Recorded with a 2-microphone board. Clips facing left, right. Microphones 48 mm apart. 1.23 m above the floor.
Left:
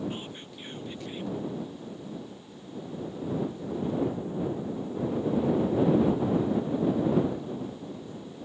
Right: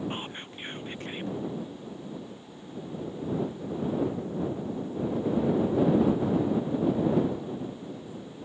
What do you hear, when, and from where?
0.1 s whispering: 40° right (ahead or behind)